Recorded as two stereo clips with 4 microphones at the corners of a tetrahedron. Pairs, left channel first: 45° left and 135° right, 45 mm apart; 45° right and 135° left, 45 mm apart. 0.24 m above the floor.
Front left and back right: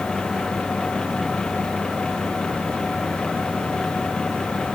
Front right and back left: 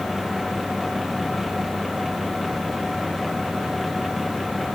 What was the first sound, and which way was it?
Only background noise.